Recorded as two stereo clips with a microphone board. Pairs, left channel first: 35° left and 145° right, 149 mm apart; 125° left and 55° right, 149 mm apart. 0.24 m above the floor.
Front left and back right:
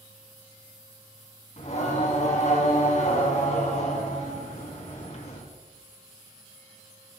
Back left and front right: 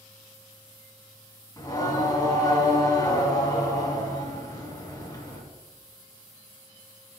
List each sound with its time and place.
1.6 s singing: 65° left, 3 m